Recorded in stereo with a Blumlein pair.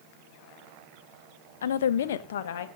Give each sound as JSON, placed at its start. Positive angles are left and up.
{"t": 1.6, "sound": "a woman speaking", "azimuth_deg": 65, "distance_m": 0.6}